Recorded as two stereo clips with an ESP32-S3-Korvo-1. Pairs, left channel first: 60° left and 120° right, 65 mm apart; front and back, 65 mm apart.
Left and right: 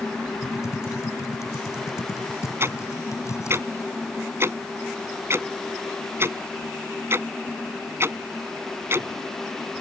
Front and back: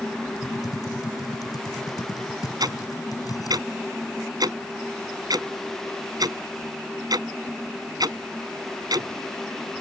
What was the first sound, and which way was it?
Typing on a keyboard, 20° left.